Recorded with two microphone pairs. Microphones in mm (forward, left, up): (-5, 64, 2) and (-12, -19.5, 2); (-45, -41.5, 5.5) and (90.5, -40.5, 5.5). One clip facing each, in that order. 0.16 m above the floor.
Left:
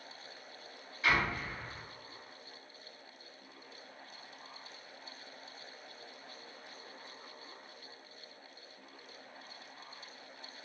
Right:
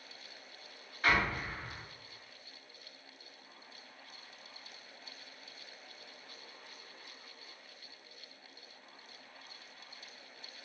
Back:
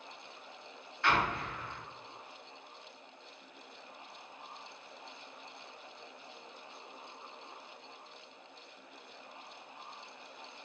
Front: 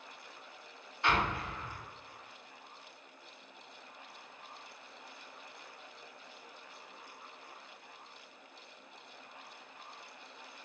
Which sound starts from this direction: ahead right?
An explosion, at 1.0 s.